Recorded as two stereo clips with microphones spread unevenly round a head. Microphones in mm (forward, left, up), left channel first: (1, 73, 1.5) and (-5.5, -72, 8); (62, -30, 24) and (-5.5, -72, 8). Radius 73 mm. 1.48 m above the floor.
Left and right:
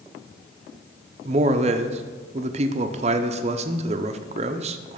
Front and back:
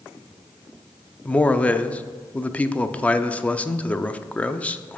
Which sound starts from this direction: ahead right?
A man speaking, at 1.2 s.